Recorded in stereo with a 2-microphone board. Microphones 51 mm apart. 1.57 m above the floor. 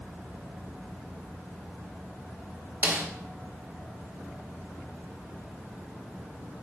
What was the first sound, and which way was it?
A snare drum, 40° right (ahead or behind).